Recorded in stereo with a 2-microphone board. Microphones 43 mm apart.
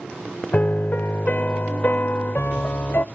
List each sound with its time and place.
0.5 s a piano: 45° left (ahead or behind), 0.6 m